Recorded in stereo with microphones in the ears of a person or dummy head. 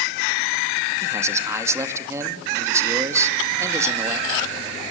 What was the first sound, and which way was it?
A man speaking, 15° right (ahead or behind).